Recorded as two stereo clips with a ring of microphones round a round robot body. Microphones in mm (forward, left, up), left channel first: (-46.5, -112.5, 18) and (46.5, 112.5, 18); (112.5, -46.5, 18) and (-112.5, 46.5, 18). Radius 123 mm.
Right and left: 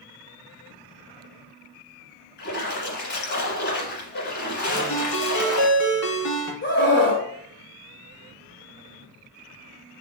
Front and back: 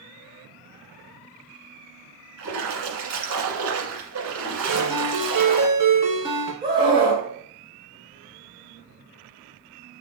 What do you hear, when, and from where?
2.4 s a splash: 165° right, 1.5 m
4.7 s a ringtone: 120° right, 1.8 m
6.6 s a scream: 140° right, 1.9 m